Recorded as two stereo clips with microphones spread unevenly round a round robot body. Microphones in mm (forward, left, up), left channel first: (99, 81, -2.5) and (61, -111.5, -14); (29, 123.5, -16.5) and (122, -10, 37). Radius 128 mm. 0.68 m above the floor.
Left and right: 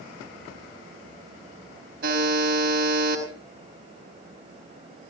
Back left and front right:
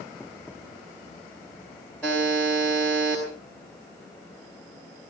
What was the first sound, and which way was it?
A buzzer, 150° right.